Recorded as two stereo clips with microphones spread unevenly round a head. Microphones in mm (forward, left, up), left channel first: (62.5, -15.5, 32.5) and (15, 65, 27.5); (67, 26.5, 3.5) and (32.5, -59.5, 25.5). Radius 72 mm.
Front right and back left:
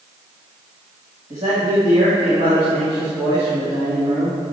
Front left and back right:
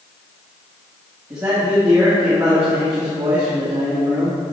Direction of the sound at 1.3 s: Straight behind.